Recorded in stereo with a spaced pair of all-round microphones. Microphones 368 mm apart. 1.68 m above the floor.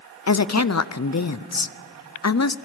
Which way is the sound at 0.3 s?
45° left (ahead or behind).